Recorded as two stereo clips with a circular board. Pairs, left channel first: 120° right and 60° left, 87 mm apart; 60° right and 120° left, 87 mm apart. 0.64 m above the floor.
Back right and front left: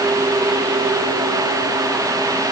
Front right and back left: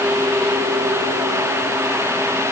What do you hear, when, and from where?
Only background noise.